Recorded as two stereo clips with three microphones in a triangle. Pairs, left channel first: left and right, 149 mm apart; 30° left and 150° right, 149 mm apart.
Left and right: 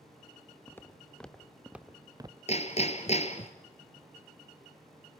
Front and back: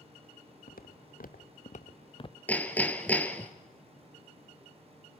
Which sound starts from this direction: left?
Hammering, at 2.5 s.